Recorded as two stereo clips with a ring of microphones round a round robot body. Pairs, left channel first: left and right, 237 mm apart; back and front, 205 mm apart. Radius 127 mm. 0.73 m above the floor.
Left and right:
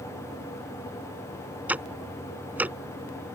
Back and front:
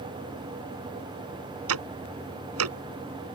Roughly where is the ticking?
Ahead.